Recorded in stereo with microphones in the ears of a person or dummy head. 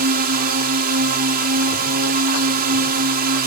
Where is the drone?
50° right (ahead or behind).